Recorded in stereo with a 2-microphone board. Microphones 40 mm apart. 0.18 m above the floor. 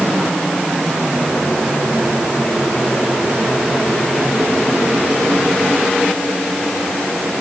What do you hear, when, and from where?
Only background noise.